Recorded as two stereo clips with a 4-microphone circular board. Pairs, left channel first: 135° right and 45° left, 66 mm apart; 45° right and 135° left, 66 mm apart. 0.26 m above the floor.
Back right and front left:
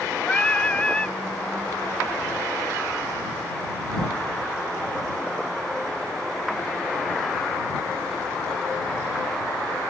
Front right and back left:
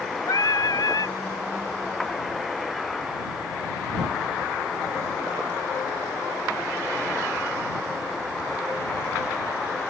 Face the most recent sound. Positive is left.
turn(degrees=-60)